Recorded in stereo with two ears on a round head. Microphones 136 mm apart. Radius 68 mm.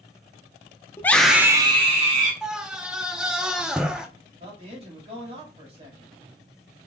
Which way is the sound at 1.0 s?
15° left (ahead or behind).